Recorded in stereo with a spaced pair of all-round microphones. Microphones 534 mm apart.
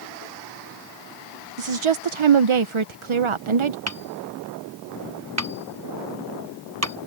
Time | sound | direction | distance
1.6 | a woman speaking | 65° right (ahead or behind) | ?
3.9 | hammering | 30° right (ahead or behind) | ?